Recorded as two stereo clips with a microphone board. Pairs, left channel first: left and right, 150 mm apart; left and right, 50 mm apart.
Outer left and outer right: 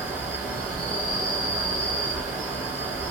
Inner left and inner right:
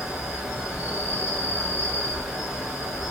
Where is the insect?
10° right (ahead or behind), 1.6 m.